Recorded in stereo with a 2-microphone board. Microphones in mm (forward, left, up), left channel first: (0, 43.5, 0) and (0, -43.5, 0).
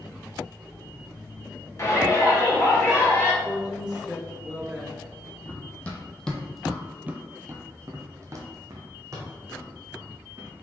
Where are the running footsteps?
20° left (ahead or behind), 0.9 m; by 10.5 s 40° right (ahead or behind), 1.8 m.